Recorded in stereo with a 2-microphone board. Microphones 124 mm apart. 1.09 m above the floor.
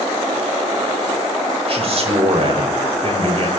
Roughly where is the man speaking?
Right.